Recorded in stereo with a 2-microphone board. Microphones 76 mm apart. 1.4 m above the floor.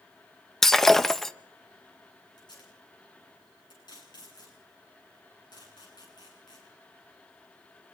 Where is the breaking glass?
5° left (ahead or behind), 0.6 m.